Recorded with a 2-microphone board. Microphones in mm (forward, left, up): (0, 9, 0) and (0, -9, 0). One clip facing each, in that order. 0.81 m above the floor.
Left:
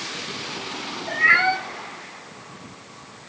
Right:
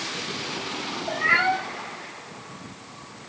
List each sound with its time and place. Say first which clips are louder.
1.1 s a cat meowing: left 4 dB; 40° left (ahead or behind), 3 m